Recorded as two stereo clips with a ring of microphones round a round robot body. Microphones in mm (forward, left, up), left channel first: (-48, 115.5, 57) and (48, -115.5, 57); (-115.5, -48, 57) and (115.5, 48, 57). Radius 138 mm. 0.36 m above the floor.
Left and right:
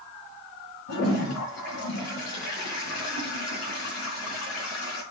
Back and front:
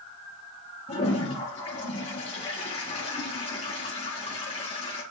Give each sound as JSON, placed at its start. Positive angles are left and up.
{"t": 0.9, "sound": "a toilet flushing", "azimuth_deg": 135, "distance_m": 4.0}